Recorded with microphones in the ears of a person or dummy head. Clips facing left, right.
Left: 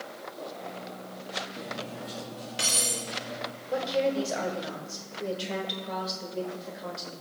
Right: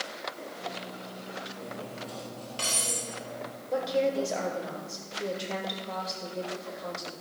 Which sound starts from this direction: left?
Cutlery clinking, at 1.6 s.